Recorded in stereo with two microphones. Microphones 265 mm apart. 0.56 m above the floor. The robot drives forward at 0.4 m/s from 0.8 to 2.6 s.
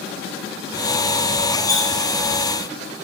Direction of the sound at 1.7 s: 30° right (ahead or behind).